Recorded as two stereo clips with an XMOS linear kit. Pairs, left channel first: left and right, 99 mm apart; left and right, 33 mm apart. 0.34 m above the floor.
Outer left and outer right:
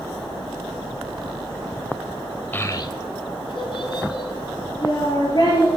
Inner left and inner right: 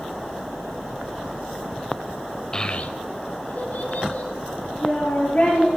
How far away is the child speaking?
About 0.7 m.